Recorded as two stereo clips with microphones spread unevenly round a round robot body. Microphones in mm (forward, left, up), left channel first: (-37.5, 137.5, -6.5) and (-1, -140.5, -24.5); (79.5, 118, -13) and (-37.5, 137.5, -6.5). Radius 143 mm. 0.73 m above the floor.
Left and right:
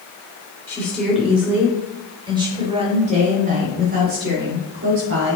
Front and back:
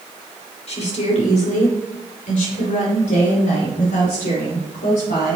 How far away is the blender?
No blender in this recording.